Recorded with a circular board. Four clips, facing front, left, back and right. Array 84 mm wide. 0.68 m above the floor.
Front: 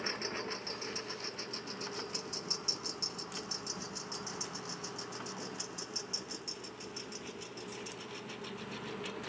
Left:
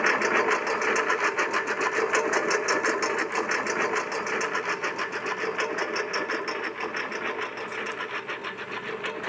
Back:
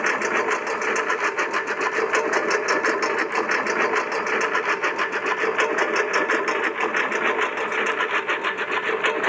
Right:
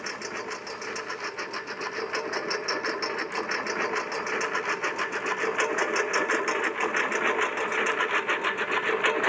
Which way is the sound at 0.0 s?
140° left.